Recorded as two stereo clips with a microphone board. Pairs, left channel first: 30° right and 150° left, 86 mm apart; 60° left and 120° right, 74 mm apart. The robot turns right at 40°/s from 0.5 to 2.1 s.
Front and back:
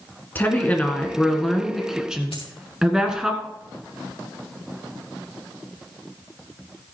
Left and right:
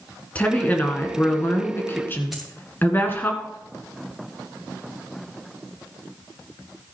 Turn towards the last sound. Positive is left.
turn(degrees=-30)